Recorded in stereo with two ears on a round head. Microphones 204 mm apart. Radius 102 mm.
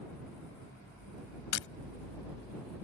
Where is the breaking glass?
60° left (ahead or behind).